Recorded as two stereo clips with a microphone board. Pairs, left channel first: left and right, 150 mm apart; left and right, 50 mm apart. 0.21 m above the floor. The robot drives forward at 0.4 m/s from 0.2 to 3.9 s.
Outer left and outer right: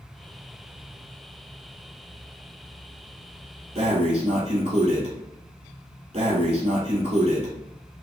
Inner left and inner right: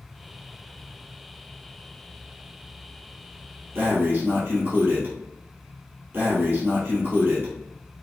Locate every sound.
3.8 s breathing: 45° right (ahead or behind), 1.6 m; by 8.0 s 40° right (ahead or behind), 1.7 m